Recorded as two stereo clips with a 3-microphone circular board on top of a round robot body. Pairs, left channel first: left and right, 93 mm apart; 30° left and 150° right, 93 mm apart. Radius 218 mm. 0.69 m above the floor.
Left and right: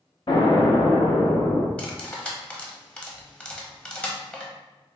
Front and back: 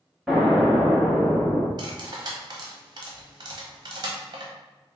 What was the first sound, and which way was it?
An explosion, 125° left.